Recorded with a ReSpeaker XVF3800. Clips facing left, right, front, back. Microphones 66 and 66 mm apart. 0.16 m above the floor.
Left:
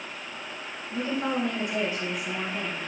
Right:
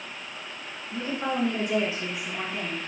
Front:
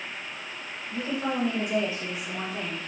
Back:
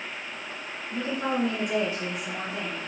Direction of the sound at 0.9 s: Straight behind.